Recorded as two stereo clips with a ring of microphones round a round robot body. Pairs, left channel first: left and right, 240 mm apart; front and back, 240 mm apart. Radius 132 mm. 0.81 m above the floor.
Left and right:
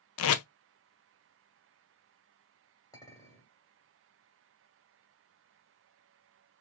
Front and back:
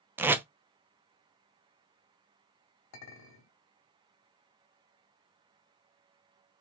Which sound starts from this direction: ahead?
A clink, at 2.9 s.